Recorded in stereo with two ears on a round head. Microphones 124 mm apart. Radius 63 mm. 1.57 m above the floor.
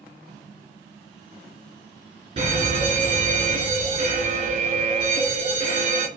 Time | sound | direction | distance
2.4 | an alarm | 45° right (ahead or behind) | 2.5 m